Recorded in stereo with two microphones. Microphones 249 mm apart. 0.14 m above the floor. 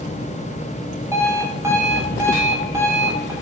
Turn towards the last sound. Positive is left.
turn(degrees=-10)  # may be behind; listen again after turning